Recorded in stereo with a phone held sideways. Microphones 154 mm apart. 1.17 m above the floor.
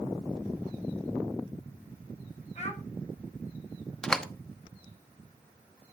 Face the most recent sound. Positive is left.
turn(degrees=5)  # may be behind; listen again after turning